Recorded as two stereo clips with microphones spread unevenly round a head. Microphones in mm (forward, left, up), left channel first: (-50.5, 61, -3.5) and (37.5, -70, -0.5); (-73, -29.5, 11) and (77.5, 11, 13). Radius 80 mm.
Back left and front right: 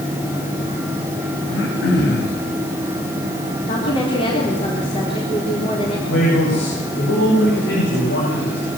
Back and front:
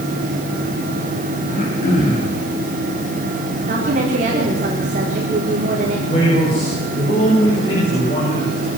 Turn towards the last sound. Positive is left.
turn(degrees=135)